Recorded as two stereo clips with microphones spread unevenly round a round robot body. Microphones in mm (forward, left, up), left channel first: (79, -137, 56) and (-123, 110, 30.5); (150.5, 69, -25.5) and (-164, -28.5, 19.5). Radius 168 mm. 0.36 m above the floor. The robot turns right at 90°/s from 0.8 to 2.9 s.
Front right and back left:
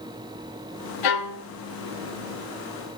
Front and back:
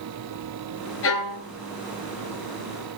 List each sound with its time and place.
1.0 s a violin: 35° right, 2 m; by 1.4 s straight ahead, 2 m